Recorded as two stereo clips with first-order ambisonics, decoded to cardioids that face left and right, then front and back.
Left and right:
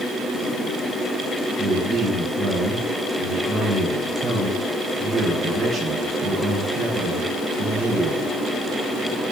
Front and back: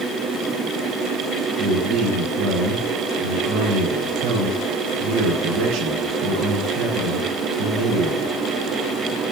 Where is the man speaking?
155° right, 4 m.